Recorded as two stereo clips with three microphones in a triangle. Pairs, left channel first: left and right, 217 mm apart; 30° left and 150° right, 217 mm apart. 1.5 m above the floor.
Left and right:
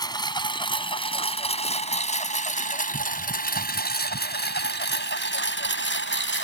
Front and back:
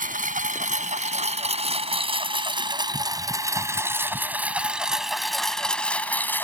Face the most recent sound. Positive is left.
turn(degrees=110)